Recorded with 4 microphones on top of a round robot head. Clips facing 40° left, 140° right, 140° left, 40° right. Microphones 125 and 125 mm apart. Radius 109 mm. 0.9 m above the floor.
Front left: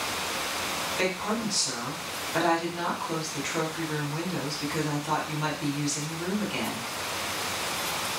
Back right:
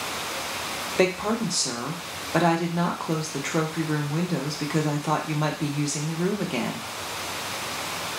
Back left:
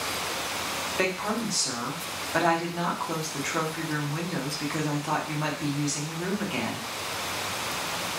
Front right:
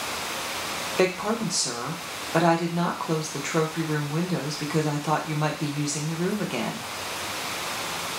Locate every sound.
1.0 s a woman speaking: 100° right, 0.8 m